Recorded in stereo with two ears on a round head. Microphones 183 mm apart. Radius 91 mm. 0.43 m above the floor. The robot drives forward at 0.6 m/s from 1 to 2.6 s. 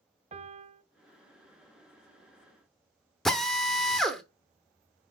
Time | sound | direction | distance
0.3 | a piano | 30° right (ahead or behind) | 0.6 m
3.2 | a drill | centre (ahead or behind) | 0.8 m